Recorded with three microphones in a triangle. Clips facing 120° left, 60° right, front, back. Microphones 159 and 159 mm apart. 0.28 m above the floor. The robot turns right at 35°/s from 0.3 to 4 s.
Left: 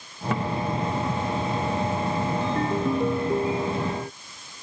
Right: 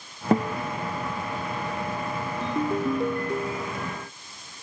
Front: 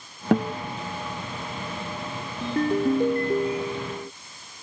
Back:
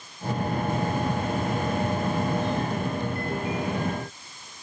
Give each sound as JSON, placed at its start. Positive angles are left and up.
{"t": 0.3, "sound": "a guitar", "azimuth_deg": -10}
{"t": 2.4, "sound": "a ringtone", "azimuth_deg": 10}